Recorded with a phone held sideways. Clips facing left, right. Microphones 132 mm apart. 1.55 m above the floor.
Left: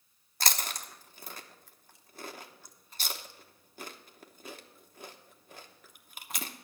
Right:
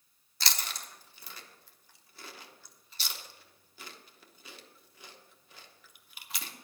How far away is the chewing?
About 0.9 m.